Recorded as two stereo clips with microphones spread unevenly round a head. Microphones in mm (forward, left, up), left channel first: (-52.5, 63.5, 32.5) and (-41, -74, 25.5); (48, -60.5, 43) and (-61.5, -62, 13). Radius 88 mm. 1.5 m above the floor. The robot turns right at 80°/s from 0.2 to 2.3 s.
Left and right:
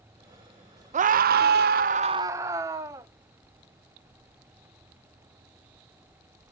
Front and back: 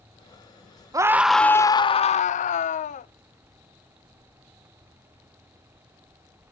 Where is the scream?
120° right, 0.6 m; by 3.1 s 10° right, 0.6 m.